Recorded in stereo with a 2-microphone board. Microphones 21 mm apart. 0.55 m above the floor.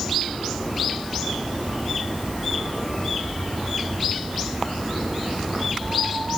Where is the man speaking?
I don't hear a man speaking.